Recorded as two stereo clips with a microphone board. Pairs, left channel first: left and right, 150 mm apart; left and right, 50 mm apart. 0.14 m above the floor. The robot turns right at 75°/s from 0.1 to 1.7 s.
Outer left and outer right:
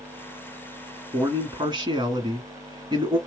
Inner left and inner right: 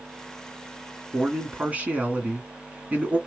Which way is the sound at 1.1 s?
25° right (ahead or behind).